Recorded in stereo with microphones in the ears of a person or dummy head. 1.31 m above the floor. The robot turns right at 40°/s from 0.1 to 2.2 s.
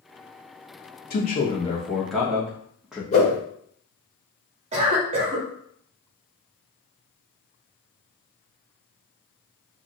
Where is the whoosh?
30° left (ahead or behind), 1.1 m.